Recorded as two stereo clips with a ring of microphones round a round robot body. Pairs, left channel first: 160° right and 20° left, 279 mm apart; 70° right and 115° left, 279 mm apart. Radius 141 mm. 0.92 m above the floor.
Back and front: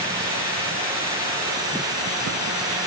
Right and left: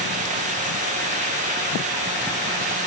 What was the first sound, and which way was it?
Only background noise.